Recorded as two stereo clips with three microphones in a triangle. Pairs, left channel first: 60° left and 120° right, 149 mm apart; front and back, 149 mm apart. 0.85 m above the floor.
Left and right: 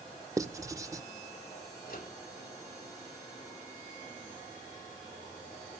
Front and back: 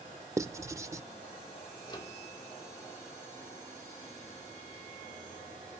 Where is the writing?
145° right, 0.5 m.